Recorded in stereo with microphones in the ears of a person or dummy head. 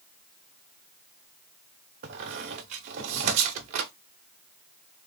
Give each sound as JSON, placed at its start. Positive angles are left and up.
{"t": 2.0, "sound": "a squeak", "side_deg": -50, "distance_m": 0.5}